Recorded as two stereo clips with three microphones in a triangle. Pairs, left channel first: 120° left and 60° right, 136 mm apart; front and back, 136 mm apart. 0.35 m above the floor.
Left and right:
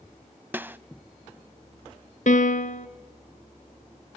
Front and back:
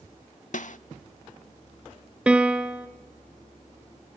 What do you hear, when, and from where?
0.5 s a snare drum: 15° left, 0.5 m
2.3 s a piano: 100° left, 1.2 m